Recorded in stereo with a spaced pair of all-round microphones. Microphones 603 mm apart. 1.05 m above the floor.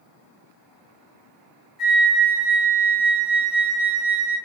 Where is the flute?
Centre (ahead or behind), 1.6 m.